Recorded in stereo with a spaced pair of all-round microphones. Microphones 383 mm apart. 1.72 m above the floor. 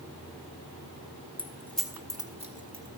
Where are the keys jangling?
10° left (ahead or behind), 1.1 m; by 2.9 s 25° right (ahead or behind), 1.3 m.